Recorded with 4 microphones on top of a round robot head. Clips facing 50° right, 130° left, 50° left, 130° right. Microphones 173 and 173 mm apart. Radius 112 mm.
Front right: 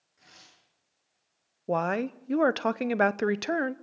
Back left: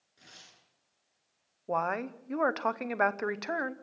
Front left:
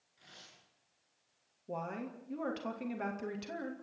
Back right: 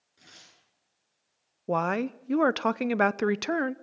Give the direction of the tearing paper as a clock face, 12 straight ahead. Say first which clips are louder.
Even, back right 2 dB; 6 o'clock.